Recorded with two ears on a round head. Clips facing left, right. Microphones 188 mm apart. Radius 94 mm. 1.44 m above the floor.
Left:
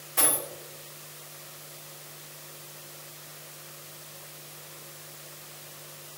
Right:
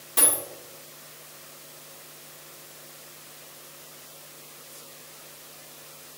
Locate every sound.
0.2 s a dropped coin: 45° right (ahead or behind), 1.6 m